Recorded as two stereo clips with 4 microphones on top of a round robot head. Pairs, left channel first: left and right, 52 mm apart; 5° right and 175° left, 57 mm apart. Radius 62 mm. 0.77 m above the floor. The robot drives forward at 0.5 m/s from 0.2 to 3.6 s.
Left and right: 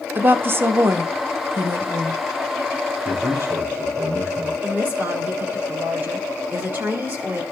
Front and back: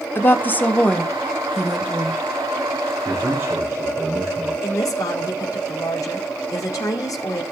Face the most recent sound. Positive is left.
turn(degrees=-30)